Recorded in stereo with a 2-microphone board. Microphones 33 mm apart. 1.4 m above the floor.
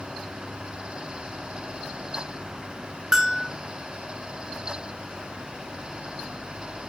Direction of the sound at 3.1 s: 20° right (ahead or behind).